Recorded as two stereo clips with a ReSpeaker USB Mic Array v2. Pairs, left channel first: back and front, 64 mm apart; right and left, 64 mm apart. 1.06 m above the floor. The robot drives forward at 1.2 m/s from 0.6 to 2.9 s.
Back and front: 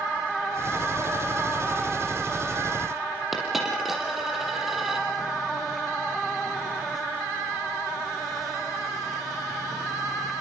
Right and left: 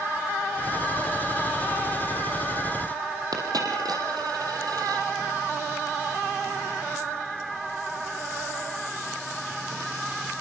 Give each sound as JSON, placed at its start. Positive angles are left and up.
{"t": 3.3, "sound": "a dropped coin", "azimuth_deg": 85, "distance_m": 5.5}